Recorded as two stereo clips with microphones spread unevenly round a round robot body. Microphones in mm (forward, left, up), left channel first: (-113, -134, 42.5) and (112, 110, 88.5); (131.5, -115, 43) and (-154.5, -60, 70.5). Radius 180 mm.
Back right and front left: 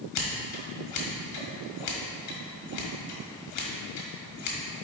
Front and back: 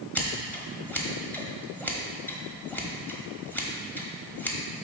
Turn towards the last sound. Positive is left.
turn(degrees=-95)